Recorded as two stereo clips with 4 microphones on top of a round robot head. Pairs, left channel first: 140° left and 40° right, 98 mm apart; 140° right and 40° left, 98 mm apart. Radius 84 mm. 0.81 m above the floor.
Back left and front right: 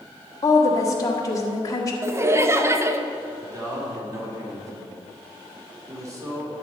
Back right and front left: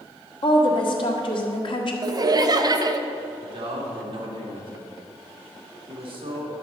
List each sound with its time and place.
0.4 s a woman speaking: 170° right, 1.4 m
2.0 s laughter: 10° left, 0.7 m
3.4 s a man speaking: 15° left, 2 m